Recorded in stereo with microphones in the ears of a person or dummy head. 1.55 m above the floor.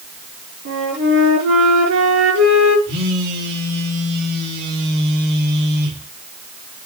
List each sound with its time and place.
0.7 s a flute: 80° right, 5.5 m
2.9 s a phone buzzing: 60° right (ahead or behind), 3 m